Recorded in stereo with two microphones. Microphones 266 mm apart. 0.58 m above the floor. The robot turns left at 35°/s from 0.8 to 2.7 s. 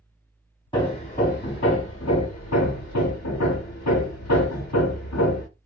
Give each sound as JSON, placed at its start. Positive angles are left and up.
{"t": 0.7, "sound": "hammering", "azimuth_deg": 165, "distance_m": 0.7}